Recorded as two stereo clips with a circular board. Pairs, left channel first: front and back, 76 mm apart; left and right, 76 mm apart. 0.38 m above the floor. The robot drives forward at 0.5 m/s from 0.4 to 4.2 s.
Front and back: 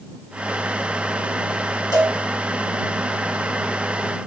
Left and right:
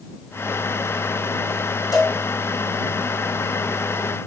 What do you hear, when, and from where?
1.9 s a cowbell: 50° left, 5.5 m